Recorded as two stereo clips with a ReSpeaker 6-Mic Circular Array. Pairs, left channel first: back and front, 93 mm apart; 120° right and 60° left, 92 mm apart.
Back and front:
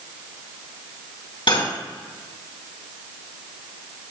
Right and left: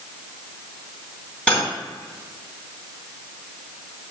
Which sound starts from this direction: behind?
Cutlery clinking, at 1.5 s.